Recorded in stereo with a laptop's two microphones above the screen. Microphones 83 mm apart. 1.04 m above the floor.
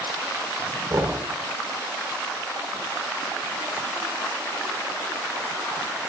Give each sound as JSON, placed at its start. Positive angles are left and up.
{"t": 0.9, "sound": "knocking", "side_deg": -40, "distance_m": 4.0}